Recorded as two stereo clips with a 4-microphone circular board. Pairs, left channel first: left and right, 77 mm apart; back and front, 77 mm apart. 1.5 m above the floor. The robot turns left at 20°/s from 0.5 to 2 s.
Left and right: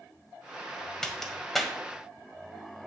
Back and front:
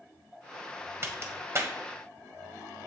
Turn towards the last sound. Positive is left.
turn(degrees=-5)